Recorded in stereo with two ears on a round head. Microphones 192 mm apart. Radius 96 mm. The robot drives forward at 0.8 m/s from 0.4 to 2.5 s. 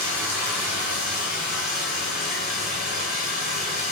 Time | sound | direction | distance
0.0 | running water | 10° right (ahead or behind) | 0.9 m